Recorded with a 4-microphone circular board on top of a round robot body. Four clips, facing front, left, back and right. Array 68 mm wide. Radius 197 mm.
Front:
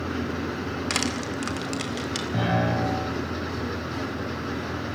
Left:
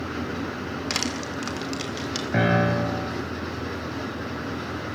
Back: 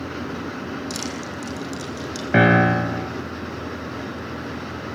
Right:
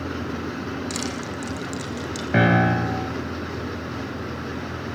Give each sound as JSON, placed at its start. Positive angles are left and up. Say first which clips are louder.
{"t": 0.9, "sound": "crushing", "louder": "even, front 2 dB", "azimuth_deg": 30, "distance_m": 3.5}
{"t": 2.3, "sound": "a piano", "louder": "right 3 dB, back 10 dB", "azimuth_deg": -165, "distance_m": 2.0}